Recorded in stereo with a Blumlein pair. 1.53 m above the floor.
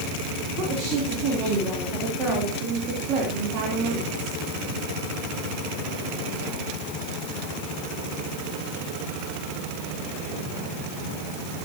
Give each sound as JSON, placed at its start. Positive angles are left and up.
{"t": 0.6, "sound": "a woman speaking", "azimuth_deg": -35, "distance_m": 4.0}